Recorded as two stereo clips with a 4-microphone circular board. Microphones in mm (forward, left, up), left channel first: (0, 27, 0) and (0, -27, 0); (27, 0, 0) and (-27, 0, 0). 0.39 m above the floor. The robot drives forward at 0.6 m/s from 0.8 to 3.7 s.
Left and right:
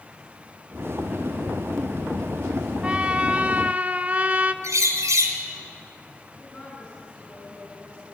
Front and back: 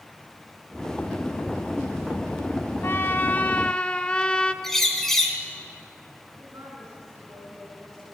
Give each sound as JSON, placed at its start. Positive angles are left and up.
{"t": 2.8, "sound": "a trumpet", "azimuth_deg": -25, "distance_m": 1.1}
{"t": 4.6, "sound": "a bird", "azimuth_deg": -80, "distance_m": 2.0}
{"t": 6.3, "sound": "a woman speaking", "azimuth_deg": 160, "distance_m": 4.5}